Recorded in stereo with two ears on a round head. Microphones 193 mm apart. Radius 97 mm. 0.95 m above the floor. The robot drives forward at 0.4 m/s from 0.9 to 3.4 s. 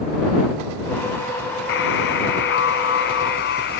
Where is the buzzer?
60° left (ahead or behind); by 3.8 s 55° left (ahead or behind).